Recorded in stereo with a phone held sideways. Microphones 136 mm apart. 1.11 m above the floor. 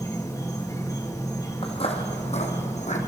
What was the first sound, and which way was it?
An insect, 25° left (ahead or behind).